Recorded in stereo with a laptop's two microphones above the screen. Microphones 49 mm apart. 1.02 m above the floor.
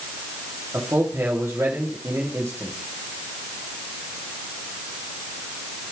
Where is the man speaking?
60° right (ahead or behind), 2.5 m.